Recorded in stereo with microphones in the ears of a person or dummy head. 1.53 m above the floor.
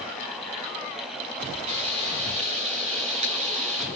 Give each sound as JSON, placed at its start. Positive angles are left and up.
{"t": 1.7, "sound": "frying", "side_deg": -35, "distance_m": 3.0}